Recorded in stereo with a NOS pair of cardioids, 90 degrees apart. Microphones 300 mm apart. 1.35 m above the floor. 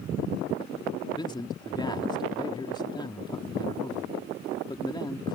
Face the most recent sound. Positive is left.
turn(degrees=15)